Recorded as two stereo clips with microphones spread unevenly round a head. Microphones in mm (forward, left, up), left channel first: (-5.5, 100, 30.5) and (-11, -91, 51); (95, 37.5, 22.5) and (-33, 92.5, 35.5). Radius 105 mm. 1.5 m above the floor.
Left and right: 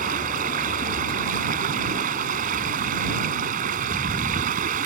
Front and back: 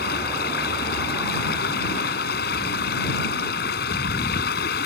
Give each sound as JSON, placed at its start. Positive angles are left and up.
{"t": 0.0, "sound": "running water", "azimuth_deg": -45}